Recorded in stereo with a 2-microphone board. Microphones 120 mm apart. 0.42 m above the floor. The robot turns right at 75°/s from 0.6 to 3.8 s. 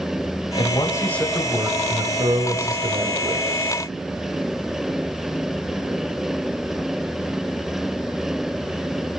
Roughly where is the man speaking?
Behind left.